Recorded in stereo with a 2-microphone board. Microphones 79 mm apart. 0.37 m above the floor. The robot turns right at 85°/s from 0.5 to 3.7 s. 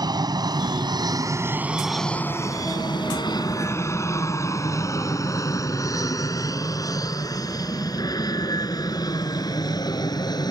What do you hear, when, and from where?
0.0 s an aircraft: 60° right (ahead or behind); by 10.5 s 60° left (ahead or behind)